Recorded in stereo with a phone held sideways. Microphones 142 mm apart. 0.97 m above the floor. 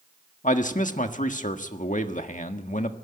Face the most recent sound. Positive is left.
turn(degrees=60)  # may be behind; listen again after turning